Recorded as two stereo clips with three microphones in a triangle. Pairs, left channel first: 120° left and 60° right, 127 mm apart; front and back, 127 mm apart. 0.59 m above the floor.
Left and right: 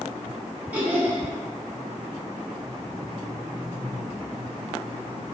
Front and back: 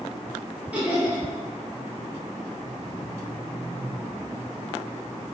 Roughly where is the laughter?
Behind right.